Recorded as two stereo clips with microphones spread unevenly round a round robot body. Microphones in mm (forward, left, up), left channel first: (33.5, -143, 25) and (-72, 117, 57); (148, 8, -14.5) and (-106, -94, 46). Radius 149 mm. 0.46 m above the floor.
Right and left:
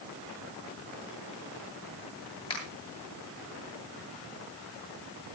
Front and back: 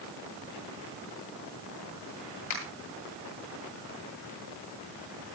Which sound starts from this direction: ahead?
A finger snap, at 2.5 s.